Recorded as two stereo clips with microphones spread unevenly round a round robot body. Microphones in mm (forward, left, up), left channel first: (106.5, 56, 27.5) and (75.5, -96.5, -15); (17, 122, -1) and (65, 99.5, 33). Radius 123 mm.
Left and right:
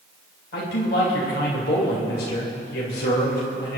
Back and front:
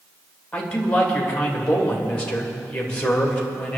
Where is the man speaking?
120° left, 2.5 m.